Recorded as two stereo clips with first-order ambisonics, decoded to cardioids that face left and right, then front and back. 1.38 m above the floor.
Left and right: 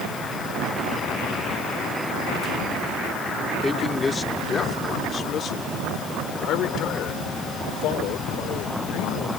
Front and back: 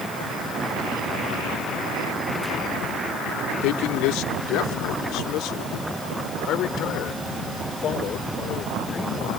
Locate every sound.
3.6 s a man speaking: 10° left; by 9.4 s 65° left